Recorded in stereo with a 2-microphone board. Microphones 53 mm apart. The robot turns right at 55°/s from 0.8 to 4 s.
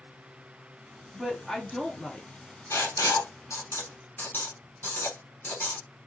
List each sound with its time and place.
1.1 s a woman speaking: centre (ahead or behind), 0.8 m; by 2.3 s 20° left (ahead or behind), 0.8 m
2.7 s writing: 70° left (ahead or behind), 1.2 m; by 5.8 s 40° left (ahead or behind), 1.2 m